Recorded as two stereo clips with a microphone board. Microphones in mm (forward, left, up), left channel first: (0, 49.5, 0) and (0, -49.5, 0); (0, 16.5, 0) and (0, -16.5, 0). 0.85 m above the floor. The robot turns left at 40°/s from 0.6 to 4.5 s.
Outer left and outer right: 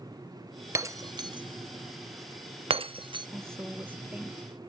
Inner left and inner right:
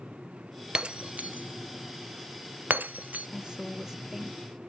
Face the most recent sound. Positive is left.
turn(degrees=-175)